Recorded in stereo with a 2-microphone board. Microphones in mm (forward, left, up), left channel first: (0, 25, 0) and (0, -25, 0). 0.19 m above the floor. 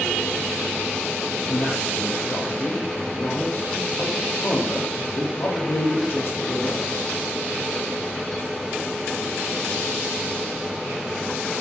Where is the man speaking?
45° left (ahead or behind), 6.5 m.